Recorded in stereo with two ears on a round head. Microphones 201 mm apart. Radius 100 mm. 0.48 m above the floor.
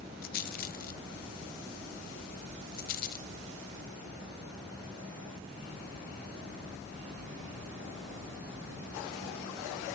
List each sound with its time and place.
0.2 s a rattle: 45° left (ahead or behind), 1.1 m